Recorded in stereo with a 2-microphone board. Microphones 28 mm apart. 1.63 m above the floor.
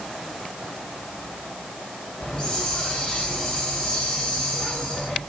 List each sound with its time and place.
2.2 s a hiss: 35° left (ahead or behind), 6.5 m